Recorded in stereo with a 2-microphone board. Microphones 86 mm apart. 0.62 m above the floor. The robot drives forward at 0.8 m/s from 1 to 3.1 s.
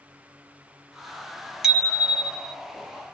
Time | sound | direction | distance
1.6 | a bicycle bell | 5° right (ahead or behind) | 2.5 m